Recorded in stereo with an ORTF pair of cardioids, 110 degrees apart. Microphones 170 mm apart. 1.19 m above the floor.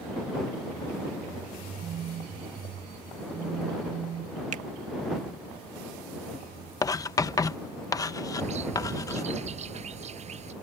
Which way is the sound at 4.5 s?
50° right.